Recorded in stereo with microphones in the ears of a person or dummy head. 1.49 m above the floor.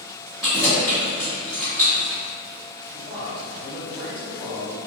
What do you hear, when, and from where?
0.4 s keys jangling: 5° left (ahead or behind), 1.6 m
2.9 s a man speaking: 25° left (ahead or behind), 1.6 m